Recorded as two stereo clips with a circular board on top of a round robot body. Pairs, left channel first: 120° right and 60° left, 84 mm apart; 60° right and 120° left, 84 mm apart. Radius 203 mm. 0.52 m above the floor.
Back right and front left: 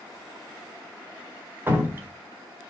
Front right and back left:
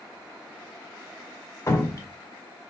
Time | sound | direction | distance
1.7 | dripping | 5° right | 1.0 m